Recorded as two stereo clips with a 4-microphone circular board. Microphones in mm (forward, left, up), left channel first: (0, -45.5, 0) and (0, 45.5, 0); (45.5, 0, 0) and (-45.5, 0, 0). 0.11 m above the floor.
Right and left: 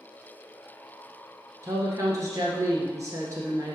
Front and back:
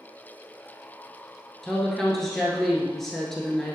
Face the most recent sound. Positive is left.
turn(degrees=85)